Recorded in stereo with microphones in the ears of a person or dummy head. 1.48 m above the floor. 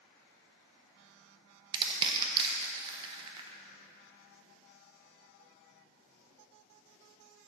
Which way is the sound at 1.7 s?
30° right (ahead or behind).